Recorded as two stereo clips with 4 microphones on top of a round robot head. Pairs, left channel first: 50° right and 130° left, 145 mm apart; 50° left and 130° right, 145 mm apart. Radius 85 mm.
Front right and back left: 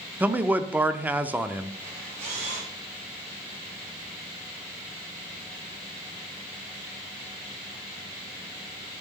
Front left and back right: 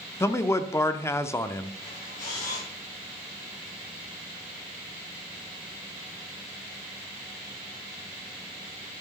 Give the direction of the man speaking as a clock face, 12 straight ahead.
10 o'clock.